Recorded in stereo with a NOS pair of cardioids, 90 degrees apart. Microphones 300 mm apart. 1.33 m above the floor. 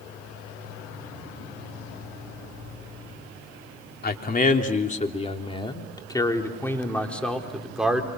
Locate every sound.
4.0 s a man speaking: 30° left, 3.5 m; by 8.1 s 5° right, 4 m